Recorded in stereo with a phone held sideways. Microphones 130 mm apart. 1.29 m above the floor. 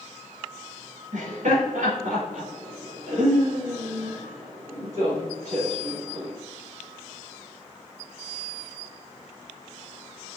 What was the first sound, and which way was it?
Laughter, 75° right (ahead or behind).